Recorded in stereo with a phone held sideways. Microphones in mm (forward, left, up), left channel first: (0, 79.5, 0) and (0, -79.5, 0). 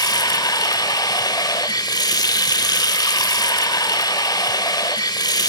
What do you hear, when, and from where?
0.0 s running water: 25° left (ahead or behind), 0.8 m